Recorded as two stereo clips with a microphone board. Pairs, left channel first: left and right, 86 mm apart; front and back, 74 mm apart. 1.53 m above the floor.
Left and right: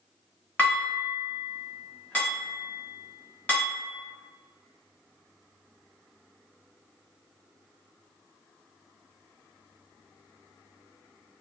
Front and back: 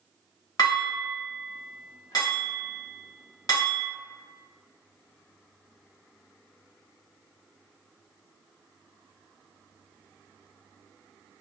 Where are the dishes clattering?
20° left, 1.3 m.